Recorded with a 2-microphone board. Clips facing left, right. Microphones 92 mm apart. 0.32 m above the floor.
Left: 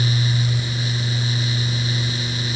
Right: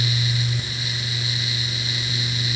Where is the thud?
No thud in this recording.